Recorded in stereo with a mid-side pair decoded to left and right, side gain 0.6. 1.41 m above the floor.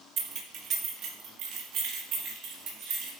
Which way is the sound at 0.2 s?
60° right.